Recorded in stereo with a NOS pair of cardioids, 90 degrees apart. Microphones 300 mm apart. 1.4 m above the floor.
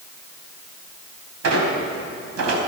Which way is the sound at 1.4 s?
60° right.